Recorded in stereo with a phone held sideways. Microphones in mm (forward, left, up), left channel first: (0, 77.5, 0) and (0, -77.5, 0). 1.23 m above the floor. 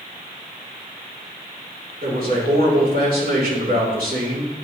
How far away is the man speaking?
About 3.5 m.